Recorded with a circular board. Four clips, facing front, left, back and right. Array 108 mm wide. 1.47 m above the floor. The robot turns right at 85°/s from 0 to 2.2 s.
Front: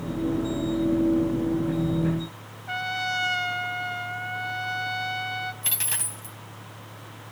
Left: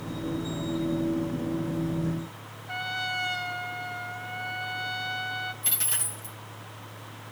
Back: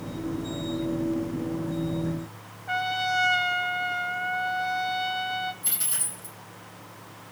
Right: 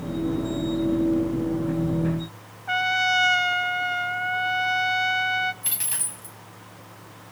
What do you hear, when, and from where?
2.7 s a trumpet: 90° right, 0.5 m
5.6 s a dropped coin: 15° right, 2.5 m